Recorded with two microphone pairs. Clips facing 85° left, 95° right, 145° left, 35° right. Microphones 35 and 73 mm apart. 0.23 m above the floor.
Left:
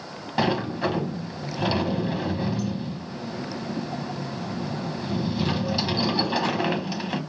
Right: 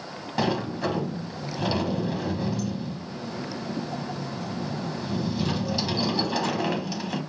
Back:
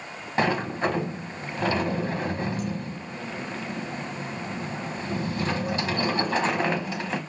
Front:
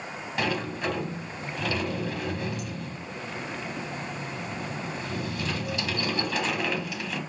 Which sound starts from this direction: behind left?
A sliding door, at 0.4 s.